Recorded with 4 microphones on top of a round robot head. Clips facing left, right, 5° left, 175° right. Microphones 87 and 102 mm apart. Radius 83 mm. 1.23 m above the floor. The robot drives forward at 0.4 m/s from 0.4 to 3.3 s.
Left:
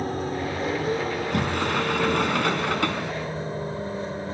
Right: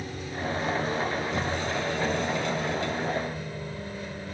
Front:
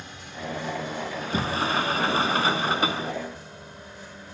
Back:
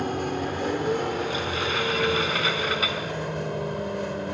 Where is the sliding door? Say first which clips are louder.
Left 3 dB, back 1 dB; 60° left; by 3.1 s 65° left.